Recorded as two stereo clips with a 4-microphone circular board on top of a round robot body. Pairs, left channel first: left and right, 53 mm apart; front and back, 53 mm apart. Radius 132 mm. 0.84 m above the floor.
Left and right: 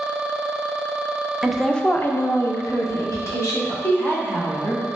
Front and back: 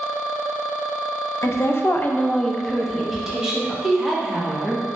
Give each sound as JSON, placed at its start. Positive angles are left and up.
{"t": 1.4, "sound": "a woman speaking", "azimuth_deg": -5, "distance_m": 0.5}
{"t": 3.8, "sound": "a woman speaking", "azimuth_deg": 90, "distance_m": 0.9}